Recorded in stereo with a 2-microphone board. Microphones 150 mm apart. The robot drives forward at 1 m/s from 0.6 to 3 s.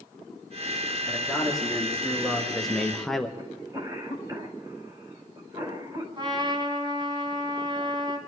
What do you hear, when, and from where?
1.1 s a man speaking: centre (ahead or behind), 3 m
3.4 s a cough: 30° right (ahead or behind), 4 m
6.2 s a trumpet: 30° right (ahead or behind), 3 m